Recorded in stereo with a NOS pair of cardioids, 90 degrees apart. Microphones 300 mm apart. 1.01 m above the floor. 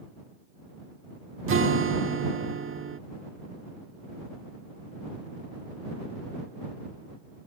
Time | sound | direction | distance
1.5 | a guitar | 45° right | ?